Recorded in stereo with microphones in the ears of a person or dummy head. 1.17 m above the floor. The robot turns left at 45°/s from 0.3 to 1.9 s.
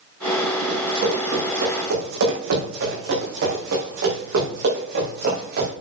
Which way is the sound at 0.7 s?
25° right (ahead or behind).